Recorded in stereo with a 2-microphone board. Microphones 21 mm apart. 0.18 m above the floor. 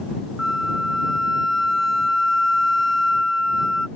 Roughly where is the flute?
Centre.